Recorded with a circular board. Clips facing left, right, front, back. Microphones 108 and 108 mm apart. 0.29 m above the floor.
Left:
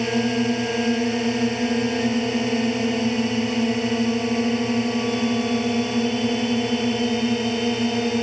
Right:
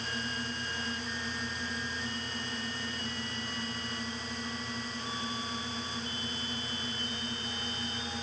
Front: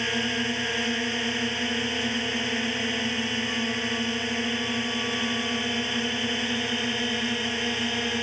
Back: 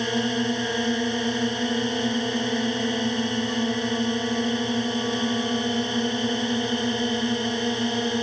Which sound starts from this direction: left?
A drone, at 0.0 s.